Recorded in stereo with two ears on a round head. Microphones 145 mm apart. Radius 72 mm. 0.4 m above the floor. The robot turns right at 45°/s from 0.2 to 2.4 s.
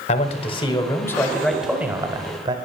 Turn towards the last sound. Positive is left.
turn(degrees=-140)